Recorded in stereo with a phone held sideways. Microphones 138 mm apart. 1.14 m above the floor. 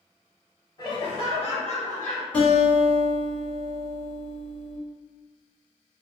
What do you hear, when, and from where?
0.8 s laughter: 30° left (ahead or behind), 1.1 m; by 2.2 s 65° left (ahead or behind), 1.3 m
2.3 s a guitar: 15° left (ahead or behind), 1.5 m